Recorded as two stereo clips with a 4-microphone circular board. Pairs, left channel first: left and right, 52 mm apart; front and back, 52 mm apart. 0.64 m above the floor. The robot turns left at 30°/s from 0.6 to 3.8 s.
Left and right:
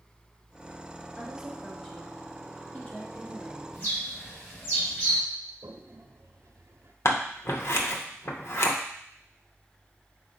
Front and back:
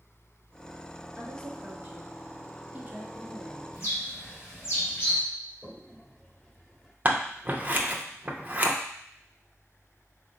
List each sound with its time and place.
1.2 s a woman speaking: 170° right, 1.2 m; by 3.6 s 115° left, 1.2 m
3.7 s a bird: 40° left, 2 m
5.6 s a toilet flushing: 75° right, 0.7 m
7.0 s scissors: 120° left, 0.6 m